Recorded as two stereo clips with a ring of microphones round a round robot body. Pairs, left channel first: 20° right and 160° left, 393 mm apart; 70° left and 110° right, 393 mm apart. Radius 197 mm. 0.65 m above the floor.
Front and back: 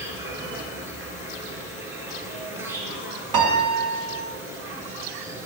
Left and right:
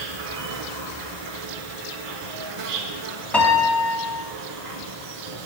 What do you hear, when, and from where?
0.0 s an insect: 120° right, 1.0 m
3.3 s a piano: 155° left, 1.3 m